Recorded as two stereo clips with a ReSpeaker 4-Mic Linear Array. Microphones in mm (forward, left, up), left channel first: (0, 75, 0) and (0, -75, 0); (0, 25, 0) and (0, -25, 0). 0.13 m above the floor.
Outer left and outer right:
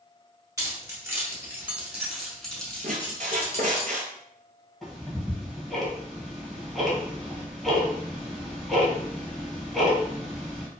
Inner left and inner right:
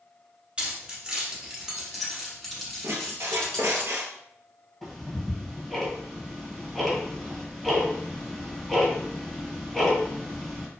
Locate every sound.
0.6 s keys jangling: 20° right (ahead or behind), 1.2 m; by 3.8 s 20° left (ahead or behind), 1.3 m
2.8 s a squeak: 60° right (ahead or behind), 0.7 m
4.8 s ticking: centre (ahead or behind), 1.2 m